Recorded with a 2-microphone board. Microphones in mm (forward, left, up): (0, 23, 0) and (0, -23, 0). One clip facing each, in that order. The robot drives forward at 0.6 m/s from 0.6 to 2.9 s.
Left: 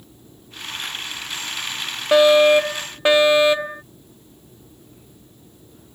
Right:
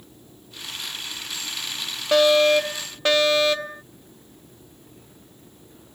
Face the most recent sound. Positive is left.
turn(degrees=20)  # may be behind; listen again after turning